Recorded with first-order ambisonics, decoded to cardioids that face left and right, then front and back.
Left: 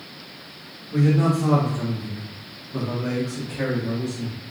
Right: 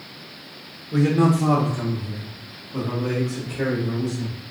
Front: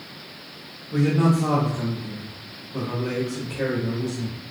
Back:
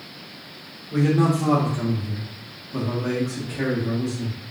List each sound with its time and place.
0.9 s a man speaking: 110° right, 0.9 m; by 4.4 s 145° left, 1.9 m